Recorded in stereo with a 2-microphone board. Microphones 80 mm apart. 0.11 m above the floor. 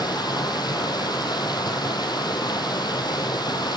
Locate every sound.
0.0 s running water: 60° left (ahead or behind), 2.5 m